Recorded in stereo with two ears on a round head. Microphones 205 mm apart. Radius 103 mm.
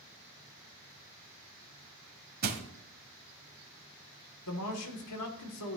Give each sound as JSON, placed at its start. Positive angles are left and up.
{"t": 2.4, "sound": "crushing", "side_deg": -40, "distance_m": 1.5}
{"t": 4.5, "sound": "a man speaking", "side_deg": 80, "distance_m": 2.5}